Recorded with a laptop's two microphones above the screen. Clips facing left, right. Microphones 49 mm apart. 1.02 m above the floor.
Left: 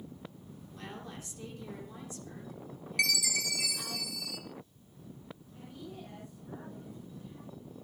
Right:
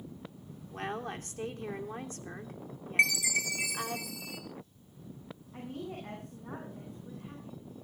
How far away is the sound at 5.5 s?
About 10 m.